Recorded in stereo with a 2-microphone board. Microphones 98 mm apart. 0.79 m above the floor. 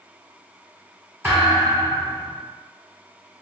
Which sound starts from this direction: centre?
A thud, at 1.2 s.